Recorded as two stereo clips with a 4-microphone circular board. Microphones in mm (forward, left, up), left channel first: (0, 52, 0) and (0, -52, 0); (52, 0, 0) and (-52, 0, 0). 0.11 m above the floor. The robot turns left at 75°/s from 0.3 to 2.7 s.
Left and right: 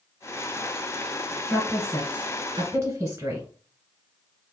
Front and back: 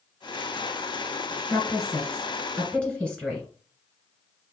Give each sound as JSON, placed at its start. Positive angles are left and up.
{"t": 1.5, "sound": "a woman speaking", "azimuth_deg": 25, "distance_m": 1.5}